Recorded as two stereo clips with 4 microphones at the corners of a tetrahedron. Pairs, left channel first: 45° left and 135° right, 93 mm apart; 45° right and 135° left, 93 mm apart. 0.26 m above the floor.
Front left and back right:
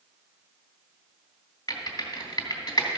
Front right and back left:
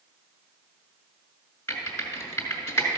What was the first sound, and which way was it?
Typing on a keyboard, 5° left.